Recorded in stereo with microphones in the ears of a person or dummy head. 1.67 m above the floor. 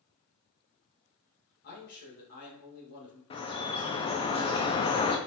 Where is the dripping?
30° left (ahead or behind), 0.6 m.